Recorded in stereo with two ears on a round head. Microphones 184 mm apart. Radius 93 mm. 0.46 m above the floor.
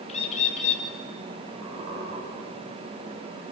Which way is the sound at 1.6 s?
55° right (ahead or behind).